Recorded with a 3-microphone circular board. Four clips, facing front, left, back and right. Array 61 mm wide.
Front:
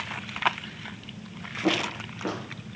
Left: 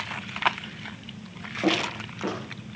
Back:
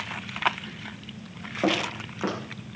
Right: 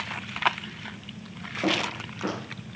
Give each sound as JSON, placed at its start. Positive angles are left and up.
{"t": 1.6, "sound": "footsteps", "azimuth_deg": 175, "distance_m": 9.0}